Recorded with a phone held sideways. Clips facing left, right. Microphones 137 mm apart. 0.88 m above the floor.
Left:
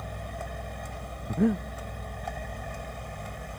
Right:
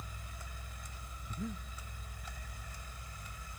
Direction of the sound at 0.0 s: 75° left (ahead or behind).